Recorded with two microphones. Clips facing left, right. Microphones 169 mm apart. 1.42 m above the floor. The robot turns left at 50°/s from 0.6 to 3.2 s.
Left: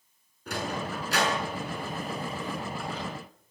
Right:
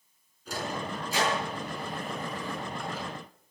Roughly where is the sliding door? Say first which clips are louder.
Left 1 dB; left.